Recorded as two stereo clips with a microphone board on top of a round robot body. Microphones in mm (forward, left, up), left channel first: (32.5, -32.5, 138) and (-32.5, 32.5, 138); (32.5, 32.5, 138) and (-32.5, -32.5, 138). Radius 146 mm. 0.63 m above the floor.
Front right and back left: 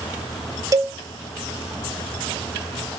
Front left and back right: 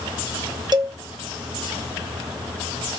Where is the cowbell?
175° right, 1.0 m.